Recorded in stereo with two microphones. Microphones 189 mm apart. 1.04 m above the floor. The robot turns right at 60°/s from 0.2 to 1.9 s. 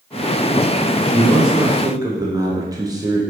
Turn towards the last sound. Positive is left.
turn(degrees=-150)